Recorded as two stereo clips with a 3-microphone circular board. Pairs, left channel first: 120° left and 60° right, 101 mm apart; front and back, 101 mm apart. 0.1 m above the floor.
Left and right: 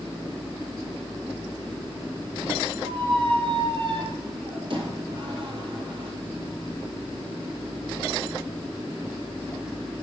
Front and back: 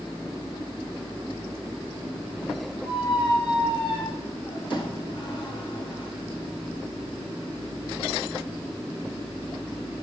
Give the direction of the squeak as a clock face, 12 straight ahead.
1 o'clock.